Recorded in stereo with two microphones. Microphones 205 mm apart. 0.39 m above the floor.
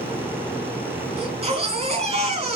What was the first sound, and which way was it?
A baby crying, 30° right (ahead or behind).